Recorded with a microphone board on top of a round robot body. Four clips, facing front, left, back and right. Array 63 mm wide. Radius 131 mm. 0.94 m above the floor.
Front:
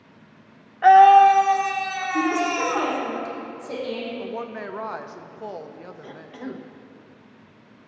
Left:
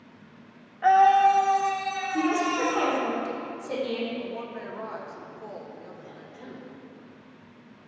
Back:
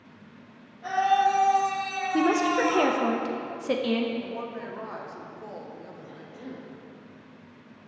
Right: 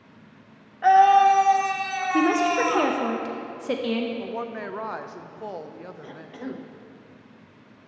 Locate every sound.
0.8 s a scream: 5° right, 0.8 m; by 2.9 s 65° right, 1.4 m
2.1 s a woman speaking: 125° right, 0.9 m
4.2 s a woman speaking: 55° right, 0.8 m
6.0 s a cough: 50° right, 0.6 m